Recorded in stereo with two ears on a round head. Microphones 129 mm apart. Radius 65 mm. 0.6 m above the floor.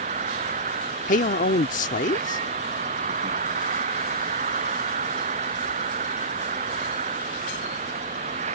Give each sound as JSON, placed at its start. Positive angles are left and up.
{"t": 0.0, "sound": "an insect", "side_deg": -50}
{"t": 1.1, "sound": "a man speaking", "side_deg": 60}